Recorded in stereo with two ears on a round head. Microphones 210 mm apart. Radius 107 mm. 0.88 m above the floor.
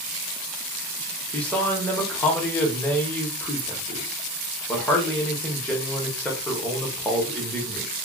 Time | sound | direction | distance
1.3 | a man speaking | 5° left (ahead or behind) | 0.8 m